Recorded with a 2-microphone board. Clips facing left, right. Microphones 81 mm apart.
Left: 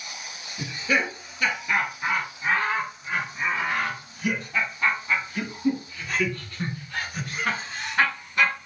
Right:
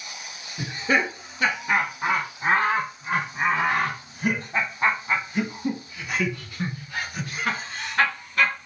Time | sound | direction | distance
0.6 | laughter | 45° right (ahead or behind) | 2.5 m